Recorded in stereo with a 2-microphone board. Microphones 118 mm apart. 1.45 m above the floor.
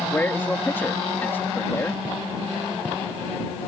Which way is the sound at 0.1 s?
15° left (ahead or behind).